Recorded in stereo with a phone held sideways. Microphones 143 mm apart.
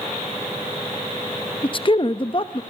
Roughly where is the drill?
I don't hear a drill.